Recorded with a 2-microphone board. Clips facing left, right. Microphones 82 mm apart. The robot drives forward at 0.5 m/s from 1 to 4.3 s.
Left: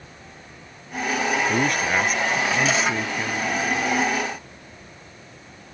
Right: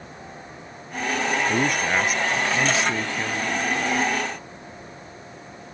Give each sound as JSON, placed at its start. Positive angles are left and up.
{"t": 1.5, "sound": "a man speaking", "side_deg": -5}